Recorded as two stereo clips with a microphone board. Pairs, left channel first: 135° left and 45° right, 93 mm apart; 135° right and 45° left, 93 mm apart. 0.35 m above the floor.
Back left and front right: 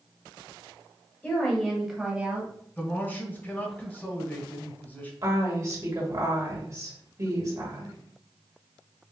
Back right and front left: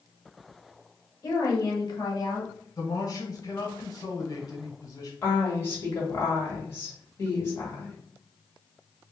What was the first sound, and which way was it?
A woman speaking, 165° right.